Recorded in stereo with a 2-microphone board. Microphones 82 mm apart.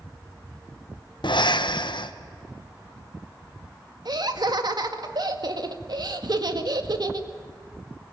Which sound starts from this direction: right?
Laughter, at 4.0 s.